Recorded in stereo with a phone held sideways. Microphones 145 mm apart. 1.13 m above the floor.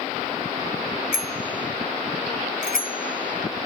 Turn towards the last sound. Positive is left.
turn(degrees=80)